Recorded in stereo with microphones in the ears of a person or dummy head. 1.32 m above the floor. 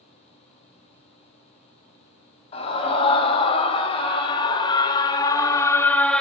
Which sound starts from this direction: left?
A scream, at 2.5 s.